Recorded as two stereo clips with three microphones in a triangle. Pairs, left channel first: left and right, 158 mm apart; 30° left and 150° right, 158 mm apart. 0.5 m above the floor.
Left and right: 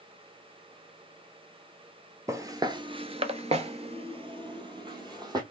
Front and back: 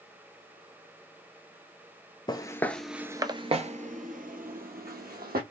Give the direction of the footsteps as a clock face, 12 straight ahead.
1 o'clock.